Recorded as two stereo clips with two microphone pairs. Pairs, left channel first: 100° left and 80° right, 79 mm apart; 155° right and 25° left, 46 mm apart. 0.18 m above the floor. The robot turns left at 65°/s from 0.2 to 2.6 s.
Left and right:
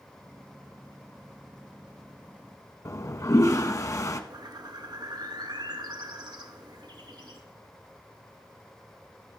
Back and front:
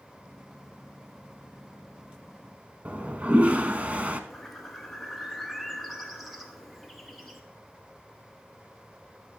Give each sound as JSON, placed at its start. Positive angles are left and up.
{"t": 2.9, "sound": "a toilet flushing", "azimuth_deg": 70, "distance_m": 0.6}
{"t": 4.3, "sound": "a bird", "azimuth_deg": -65, "distance_m": 0.9}